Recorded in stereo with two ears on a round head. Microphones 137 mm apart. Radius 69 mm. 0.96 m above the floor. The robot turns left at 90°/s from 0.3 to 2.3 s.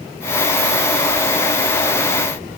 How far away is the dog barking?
No dog barking in this recording.